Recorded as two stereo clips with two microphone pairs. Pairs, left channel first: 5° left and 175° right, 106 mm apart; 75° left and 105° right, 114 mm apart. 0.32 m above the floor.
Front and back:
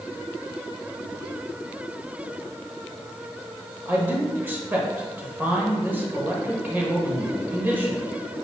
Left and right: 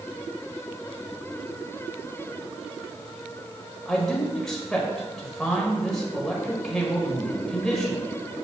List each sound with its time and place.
3.9 s a man speaking: 160° left, 1.3 m